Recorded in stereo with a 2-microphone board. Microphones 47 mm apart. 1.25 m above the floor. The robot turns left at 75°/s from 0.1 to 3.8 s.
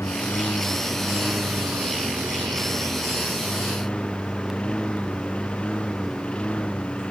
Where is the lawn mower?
75° left (ahead or behind); by 7.1 s 25° left (ahead or behind).